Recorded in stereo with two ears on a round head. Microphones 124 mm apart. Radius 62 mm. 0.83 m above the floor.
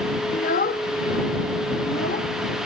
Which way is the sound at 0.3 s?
60° left (ahead or behind).